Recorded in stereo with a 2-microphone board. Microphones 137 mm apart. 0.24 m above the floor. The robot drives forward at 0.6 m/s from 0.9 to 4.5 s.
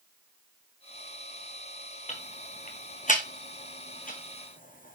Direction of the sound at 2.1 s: 55° left (ahead or behind).